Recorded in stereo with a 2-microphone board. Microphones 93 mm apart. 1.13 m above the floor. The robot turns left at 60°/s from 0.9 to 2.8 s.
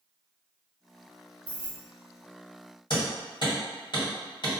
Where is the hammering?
60° left (ahead or behind), 1.5 m.